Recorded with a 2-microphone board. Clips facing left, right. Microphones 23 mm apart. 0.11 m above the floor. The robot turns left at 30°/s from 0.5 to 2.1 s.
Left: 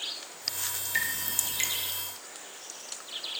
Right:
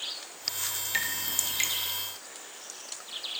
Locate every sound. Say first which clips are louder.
0.9 s dripping: left 1 dB; 25° right (ahead or behind), 0.6 m; by 1.7 s 5° right (ahead or behind), 0.6 m